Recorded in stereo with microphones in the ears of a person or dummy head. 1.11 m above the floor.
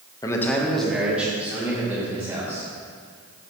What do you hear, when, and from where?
0.2 s a man speaking: 20° left (ahead or behind), 1.0 m; by 2.7 s 15° right (ahead or behind), 4.5 m